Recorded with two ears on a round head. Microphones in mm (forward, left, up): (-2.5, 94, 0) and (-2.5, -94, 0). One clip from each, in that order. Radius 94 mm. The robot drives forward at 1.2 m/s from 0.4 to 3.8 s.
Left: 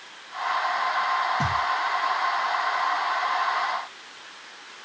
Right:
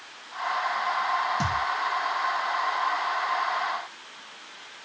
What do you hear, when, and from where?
1.4 s a thud: 35° right (ahead or behind), 3 m; by 1.7 s 40° right (ahead or behind), 2.5 m